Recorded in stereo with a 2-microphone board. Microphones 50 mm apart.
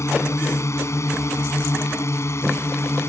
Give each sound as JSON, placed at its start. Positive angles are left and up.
{"t": 0.0, "sound": "a drone", "side_deg": 65}